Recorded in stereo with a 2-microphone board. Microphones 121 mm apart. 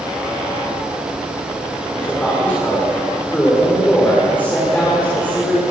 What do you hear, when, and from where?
1.9 s a man speaking: 15° left (ahead or behind), 6.5 m